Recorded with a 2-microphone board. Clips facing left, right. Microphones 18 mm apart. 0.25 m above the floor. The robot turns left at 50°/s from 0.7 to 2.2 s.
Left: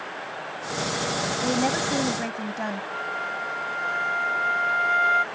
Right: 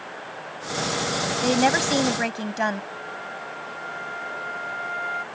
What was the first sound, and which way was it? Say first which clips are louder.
A woman speaking: right 5 dB; 65° right.